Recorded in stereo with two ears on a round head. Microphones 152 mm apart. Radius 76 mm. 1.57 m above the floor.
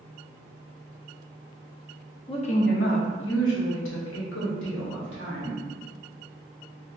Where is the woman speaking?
30° left (ahead or behind), 0.5 m; by 5.6 s 70° left (ahead or behind), 1.8 m.